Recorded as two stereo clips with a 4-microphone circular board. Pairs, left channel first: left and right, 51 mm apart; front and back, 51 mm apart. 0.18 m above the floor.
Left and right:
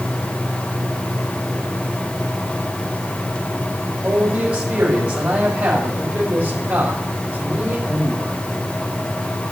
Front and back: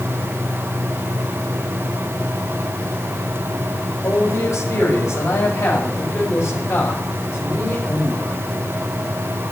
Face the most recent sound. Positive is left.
turn(degrees=-35)